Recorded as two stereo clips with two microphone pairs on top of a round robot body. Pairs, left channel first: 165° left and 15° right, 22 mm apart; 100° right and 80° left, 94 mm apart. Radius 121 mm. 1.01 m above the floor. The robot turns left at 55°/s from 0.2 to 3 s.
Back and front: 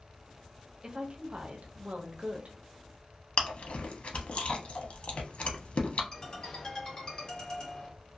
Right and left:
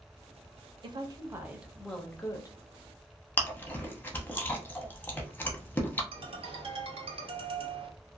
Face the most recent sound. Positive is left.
turn(degrees=100)